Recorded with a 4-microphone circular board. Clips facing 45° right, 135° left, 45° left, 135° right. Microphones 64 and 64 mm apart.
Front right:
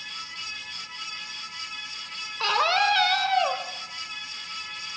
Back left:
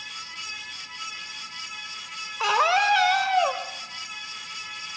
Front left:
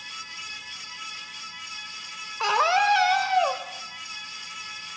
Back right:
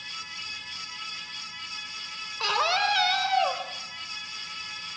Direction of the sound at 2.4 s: 75° left.